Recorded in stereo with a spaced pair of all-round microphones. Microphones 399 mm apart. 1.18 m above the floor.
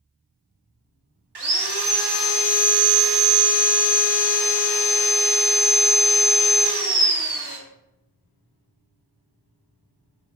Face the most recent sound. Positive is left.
turn(degrees=-70)  # may be behind; listen again after turning